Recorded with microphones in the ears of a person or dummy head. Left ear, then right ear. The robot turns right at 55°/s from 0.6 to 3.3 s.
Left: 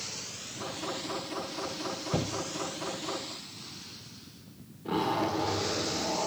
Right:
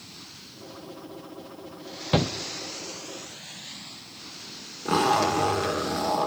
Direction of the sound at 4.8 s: 65° right (ahead or behind).